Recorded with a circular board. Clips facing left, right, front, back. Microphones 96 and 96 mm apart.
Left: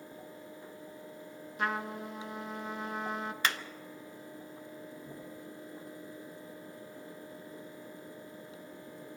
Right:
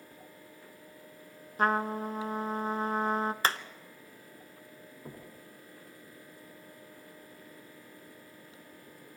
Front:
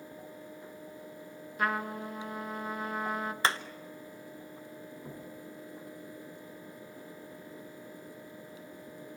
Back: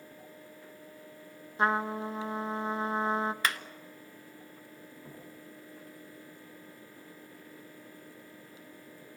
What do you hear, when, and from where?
1.6 s a trumpet: 125° right, 0.7 m
3.4 s hammering: 50° right, 0.8 m
5.0 s knocking: 70° right, 5 m